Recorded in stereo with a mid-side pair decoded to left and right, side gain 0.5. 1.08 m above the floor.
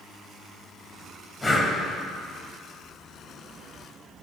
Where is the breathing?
20° left, 3 m.